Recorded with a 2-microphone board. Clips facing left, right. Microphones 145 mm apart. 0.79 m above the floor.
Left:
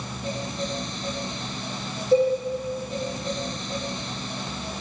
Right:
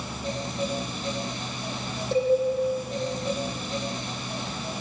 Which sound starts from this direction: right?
A cowbell, at 2.1 s.